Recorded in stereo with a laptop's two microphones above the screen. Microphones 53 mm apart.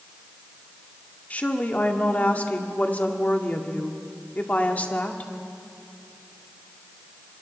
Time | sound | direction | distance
1.3 | a woman speaking | 25° left (ahead or behind) | 1.9 m